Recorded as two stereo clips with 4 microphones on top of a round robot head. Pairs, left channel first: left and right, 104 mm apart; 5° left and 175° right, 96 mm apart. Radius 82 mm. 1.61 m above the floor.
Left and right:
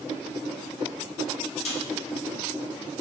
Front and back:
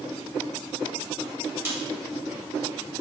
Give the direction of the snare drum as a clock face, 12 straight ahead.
8 o'clock.